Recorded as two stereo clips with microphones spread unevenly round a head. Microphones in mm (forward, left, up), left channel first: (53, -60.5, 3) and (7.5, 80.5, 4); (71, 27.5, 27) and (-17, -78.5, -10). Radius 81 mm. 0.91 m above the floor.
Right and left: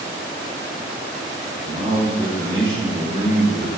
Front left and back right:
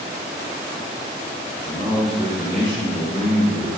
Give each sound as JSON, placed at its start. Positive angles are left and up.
{"t": 1.6, "sound": "a man speaking", "azimuth_deg": 175, "distance_m": 3.0}